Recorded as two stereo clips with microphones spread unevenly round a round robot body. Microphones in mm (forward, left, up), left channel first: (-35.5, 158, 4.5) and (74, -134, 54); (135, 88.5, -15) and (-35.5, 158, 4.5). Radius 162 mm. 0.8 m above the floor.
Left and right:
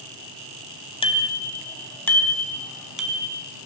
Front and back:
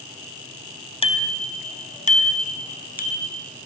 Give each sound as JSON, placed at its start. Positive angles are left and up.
{"t": 1.0, "sound": "a bicycle bell", "azimuth_deg": 35, "distance_m": 4.0}